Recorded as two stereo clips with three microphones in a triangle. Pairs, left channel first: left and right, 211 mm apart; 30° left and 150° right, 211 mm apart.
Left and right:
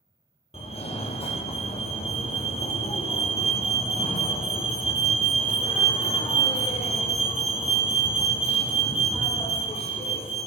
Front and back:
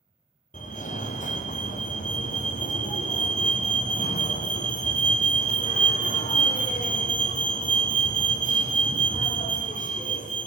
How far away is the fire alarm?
About 0.8 m.